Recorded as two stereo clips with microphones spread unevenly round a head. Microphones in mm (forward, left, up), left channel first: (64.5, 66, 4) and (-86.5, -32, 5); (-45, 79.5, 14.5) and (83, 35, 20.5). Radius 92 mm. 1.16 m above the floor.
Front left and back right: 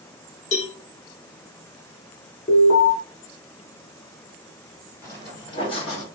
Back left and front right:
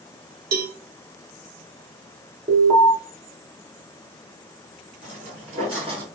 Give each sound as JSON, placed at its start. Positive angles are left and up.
{"t": 0.5, "sound": "a cowbell", "azimuth_deg": -25, "distance_m": 0.5}
{"t": 2.5, "sound": "an alarm", "azimuth_deg": -5, "distance_m": 1.6}
{"t": 5.0, "sound": "footsteps", "azimuth_deg": -40, "distance_m": 1.5}